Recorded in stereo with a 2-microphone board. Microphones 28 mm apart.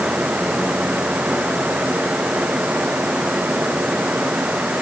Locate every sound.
Only background noise.